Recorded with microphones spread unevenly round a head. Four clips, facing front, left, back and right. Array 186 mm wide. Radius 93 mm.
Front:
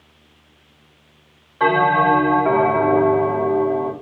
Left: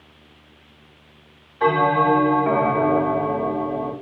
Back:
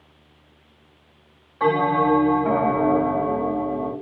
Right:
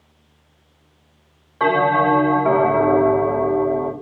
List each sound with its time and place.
1.6 s a bell: 50° right, 4 m